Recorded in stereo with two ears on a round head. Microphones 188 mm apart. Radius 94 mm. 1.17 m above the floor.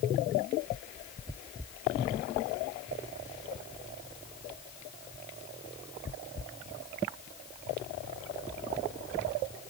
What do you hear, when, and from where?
Only background noise.